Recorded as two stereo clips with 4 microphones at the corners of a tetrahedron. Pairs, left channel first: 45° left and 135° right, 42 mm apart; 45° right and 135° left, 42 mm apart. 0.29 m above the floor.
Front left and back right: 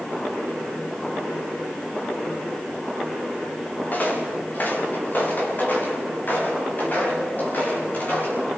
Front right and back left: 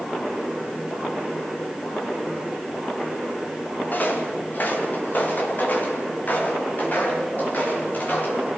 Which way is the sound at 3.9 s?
Straight ahead.